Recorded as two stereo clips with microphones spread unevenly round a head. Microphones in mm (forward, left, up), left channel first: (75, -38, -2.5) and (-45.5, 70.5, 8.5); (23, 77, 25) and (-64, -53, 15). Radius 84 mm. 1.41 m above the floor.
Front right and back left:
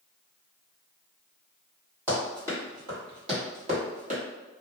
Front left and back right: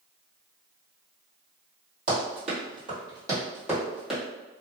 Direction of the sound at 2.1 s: 150° right.